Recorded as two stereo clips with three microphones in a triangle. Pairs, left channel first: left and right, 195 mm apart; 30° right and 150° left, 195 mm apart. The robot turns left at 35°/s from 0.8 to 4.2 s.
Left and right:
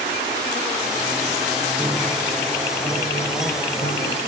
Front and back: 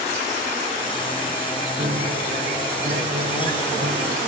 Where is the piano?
165° right; by 4.2 s 115° left.